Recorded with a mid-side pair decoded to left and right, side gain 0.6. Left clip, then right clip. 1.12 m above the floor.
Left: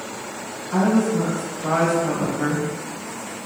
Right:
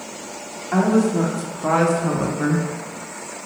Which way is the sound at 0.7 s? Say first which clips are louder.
Right 2 dB; 60° right.